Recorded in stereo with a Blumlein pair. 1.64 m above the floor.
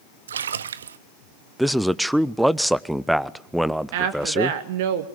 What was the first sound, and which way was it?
A splash, 65° right.